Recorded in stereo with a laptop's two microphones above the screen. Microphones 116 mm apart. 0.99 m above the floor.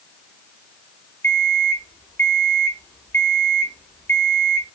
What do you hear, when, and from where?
1.2 s an alarm clock: 20° left (ahead or behind), 3 m